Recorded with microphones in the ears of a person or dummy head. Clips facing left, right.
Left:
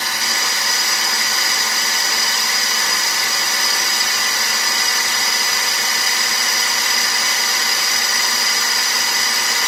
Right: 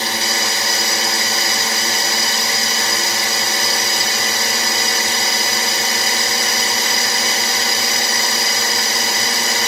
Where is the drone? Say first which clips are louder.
Right 4 dB; 30° right (ahead or behind).